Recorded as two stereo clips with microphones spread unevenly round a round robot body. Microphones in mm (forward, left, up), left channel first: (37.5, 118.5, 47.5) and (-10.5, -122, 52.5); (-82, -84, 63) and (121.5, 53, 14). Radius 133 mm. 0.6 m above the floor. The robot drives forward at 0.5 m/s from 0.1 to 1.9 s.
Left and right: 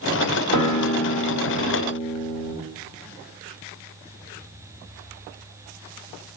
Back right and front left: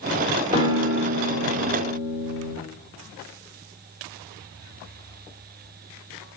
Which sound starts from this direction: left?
A guitar, at 0.5 s.